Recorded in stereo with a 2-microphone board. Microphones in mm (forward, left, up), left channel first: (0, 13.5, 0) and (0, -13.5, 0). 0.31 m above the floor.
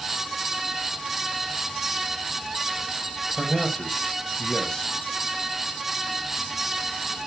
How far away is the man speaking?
About 1.7 m.